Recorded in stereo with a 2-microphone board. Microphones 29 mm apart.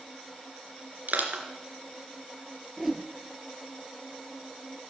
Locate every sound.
1.1 s crushing: 70° right (ahead or behind), 2.5 m
2.8 s a whoosh: 10° right (ahead or behind), 1.2 m